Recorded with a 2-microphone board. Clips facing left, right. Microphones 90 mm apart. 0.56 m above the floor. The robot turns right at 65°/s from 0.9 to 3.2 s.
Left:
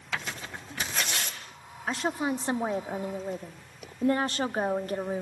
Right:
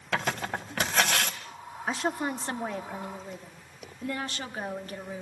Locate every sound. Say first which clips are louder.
0.1 s tearing paper: right 6 dB; 65° right (ahead or behind), 1.5 m; by 1.4 s 80° right, 1.5 m
1.9 s a woman speaking: left 1 dB; 10° right, 1.0 m; by 5.2 s 75° left, 1.0 m